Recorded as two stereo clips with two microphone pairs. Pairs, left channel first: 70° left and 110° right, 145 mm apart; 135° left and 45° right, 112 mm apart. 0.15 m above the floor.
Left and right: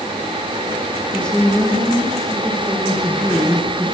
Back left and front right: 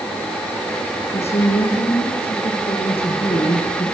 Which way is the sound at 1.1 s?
155° left.